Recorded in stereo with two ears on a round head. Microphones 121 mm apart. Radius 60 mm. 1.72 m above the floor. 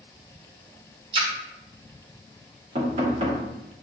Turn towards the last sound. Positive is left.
turn(degrees=-45)  # may be behind; listen again after turning